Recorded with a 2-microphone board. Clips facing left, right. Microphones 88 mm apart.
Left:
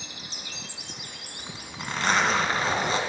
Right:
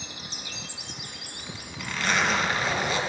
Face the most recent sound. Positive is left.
turn(degrees=35)  # may be behind; listen again after turning